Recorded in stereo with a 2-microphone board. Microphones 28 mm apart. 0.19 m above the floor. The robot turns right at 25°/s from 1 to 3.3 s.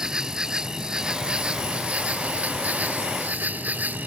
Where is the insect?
150° right; by 4.1 s 95° right.